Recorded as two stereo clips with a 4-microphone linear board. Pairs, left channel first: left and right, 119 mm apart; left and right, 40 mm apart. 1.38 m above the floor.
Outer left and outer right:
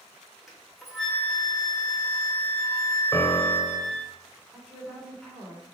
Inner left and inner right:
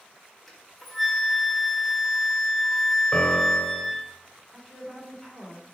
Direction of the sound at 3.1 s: 25° left (ahead or behind).